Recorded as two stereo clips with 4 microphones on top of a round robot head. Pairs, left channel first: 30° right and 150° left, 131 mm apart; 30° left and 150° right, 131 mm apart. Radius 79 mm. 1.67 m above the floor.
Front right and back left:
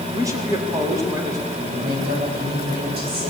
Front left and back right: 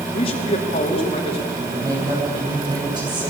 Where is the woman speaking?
150° left, 10 m.